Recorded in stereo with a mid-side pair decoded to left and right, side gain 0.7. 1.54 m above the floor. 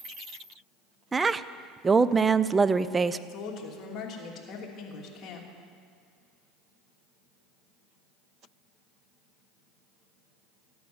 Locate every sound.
1.1 s a woman speaking: 20° right, 0.5 m
3.3 s a woman speaking: 40° left, 3 m